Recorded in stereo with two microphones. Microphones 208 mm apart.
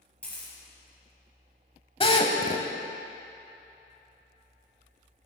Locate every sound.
0.2 s a camera shutter: 5° left (ahead or behind), 4 m
2.0 s a drill: 25° left (ahead or behind), 0.9 m